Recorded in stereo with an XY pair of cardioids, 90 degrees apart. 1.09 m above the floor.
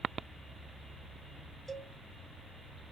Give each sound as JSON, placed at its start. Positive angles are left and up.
{"t": 1.7, "sound": "a cowbell", "azimuth_deg": -10, "distance_m": 2.0}